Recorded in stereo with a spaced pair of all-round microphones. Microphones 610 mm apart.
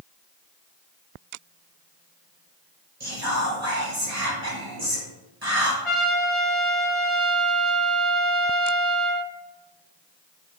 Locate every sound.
3.0 s whispering: 80° right, 2.5 m
5.8 s a trumpet: 55° left (ahead or behind), 1.4 m